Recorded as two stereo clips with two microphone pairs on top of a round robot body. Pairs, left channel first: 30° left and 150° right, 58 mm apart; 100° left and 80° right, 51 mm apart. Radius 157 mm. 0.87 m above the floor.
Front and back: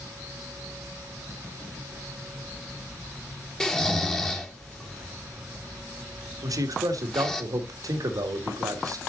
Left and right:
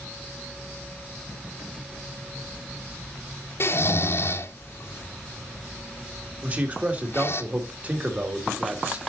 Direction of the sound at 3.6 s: 110° left.